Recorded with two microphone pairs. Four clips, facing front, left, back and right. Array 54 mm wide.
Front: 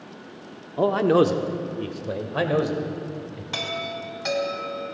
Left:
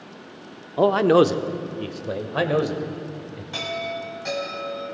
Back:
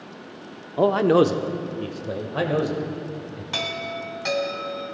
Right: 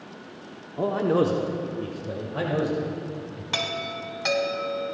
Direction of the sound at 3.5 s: 110° right.